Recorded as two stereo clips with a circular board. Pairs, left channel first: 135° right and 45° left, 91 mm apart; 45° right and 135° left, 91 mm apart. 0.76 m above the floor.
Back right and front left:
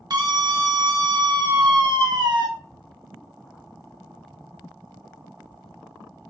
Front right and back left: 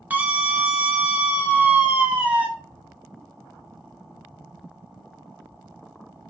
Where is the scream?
65° left, 0.8 m.